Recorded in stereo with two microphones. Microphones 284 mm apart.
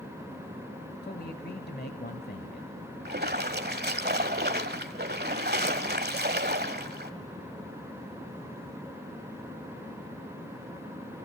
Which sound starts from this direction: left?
A man speaking, at 1.0 s.